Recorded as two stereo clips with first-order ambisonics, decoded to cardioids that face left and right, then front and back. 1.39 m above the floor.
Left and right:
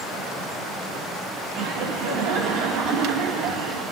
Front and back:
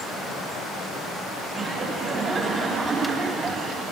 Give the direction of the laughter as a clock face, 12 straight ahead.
4 o'clock.